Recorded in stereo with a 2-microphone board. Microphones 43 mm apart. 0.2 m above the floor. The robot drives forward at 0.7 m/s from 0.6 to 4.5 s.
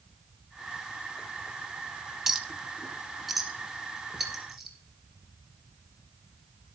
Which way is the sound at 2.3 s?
10° right (ahead or behind).